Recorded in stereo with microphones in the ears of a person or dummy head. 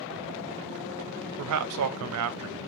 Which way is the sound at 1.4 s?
70° right (ahead or behind).